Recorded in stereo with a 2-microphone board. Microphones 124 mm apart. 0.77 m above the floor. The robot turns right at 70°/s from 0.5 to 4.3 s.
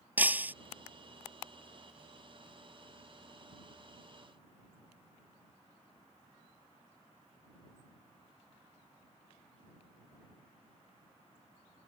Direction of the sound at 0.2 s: 15° right (ahead or behind).